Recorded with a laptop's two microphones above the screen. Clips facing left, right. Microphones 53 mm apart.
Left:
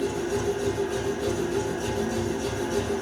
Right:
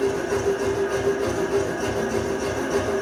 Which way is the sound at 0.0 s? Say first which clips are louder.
Right 4 dB; 65° right (ahead or behind).